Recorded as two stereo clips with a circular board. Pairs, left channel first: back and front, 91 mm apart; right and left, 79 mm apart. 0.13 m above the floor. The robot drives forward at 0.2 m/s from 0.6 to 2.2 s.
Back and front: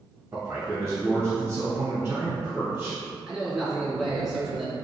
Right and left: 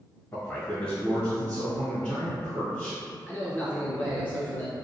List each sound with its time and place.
0.3 s a man speaking: 30° right, 1.7 m; by 3.0 s 45° right, 1.6 m
3.3 s a man speaking: 75° right, 1.1 m